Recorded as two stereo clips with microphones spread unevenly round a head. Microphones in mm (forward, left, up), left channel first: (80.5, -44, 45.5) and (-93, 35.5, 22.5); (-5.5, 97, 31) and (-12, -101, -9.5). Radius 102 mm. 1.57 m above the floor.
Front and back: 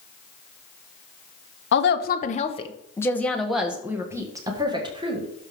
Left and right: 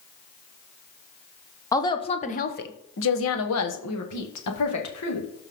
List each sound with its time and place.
1.7 s a woman speaking: 10° left, 1.2 m; by 5.3 s 90° left, 2.5 m